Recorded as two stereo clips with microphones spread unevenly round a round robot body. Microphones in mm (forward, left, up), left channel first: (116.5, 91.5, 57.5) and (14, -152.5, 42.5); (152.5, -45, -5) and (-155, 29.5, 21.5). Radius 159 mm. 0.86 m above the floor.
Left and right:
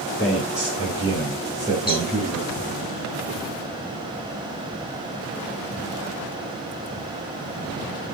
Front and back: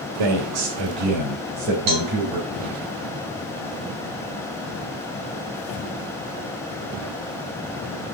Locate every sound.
0.2 s a man speaking: 155° left, 1.2 m; by 2.5 s 170° left, 4 m
1.9 s a cowbell: 160° left, 3.5 m